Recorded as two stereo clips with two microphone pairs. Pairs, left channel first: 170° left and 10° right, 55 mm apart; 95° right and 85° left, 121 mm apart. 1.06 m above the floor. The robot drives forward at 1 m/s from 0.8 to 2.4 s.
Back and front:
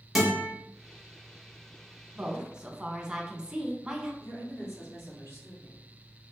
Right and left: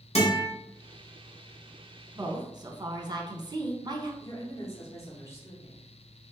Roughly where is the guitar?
Right.